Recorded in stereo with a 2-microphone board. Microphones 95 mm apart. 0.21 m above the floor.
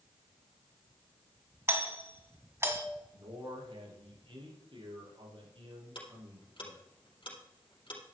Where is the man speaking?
65° right (ahead or behind), 5 m.